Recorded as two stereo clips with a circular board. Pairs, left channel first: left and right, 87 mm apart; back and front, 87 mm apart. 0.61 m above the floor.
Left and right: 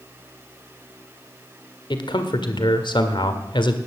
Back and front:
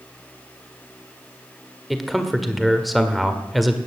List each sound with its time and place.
1.9 s a man speaking: 90° left, 1.6 m